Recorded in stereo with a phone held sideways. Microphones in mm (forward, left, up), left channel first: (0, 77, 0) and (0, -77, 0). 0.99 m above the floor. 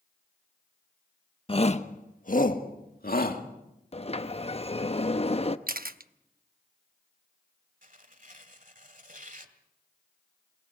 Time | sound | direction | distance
1.5 | a shout | 35° left (ahead or behind) | 1.1 m
3.9 | a sliding door | 40° left (ahead or behind) | 0.8 m
5.7 | a camera shutter | 70° right (ahead or behind) | 0.8 m
7.8 | tearing paper | 60° right (ahead or behind) | 1.7 m